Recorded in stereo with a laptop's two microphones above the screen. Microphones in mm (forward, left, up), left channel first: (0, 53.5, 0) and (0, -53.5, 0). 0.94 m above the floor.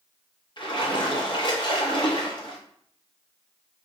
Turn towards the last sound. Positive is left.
turn(degrees=45)  # may be behind; listen again after turning